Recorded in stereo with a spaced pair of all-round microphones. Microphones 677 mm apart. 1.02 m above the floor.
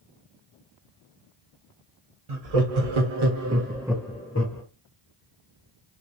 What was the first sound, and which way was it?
Laughter, 65° right (ahead or behind).